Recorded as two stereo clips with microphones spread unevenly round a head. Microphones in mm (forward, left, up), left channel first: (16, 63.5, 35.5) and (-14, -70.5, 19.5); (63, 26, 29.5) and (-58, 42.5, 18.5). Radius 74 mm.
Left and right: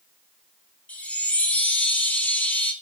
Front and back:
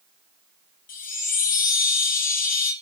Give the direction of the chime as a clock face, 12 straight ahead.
12 o'clock.